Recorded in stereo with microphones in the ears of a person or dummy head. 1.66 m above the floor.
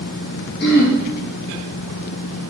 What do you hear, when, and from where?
0.6 s throat clearing: 55° left (ahead or behind), 0.7 m